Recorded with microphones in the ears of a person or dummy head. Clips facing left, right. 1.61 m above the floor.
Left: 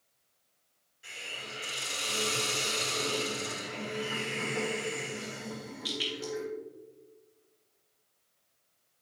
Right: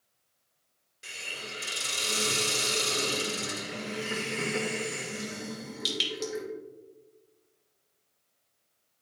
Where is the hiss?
75° right (ahead or behind), 3 m.